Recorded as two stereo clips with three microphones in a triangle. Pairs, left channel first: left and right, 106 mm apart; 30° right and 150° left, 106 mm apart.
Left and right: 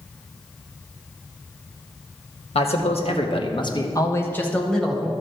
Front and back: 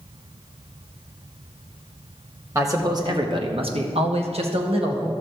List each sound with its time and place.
2.5 s a man speaking: 90° left, 1.5 m; by 5.1 s straight behind, 1.6 m